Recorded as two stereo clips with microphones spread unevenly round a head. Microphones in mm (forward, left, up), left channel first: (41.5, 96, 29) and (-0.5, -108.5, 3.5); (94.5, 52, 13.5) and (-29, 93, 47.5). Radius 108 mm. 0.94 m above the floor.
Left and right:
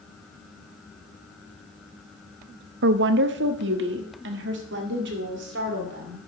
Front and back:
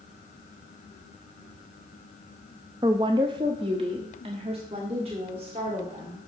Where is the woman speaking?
125° right, 0.5 m; by 6.3 s 135° right, 3 m.